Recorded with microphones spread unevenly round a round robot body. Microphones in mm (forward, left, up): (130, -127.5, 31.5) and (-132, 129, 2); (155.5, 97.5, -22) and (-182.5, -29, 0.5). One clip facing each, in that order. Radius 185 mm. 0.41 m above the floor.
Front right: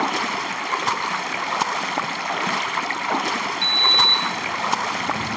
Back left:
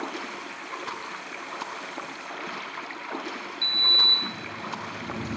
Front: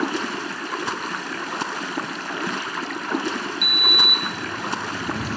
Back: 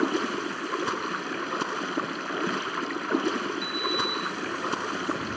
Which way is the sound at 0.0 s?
60° right.